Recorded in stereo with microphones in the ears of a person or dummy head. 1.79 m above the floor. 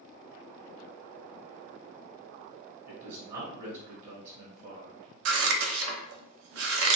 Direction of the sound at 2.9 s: 45° right (ahead or behind).